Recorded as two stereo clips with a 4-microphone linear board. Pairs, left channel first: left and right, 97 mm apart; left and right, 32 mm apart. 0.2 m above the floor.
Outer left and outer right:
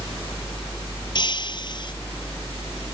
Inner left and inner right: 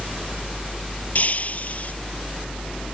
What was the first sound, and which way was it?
Breaking glass, 50° left (ahead or behind).